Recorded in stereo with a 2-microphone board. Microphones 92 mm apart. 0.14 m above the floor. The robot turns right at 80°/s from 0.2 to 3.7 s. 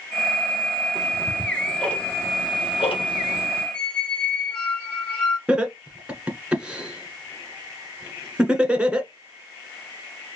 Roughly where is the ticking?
Right.